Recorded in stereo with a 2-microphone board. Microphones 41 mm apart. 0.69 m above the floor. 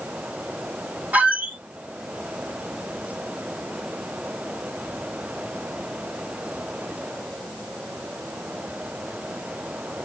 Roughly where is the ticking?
I don't hear ticking.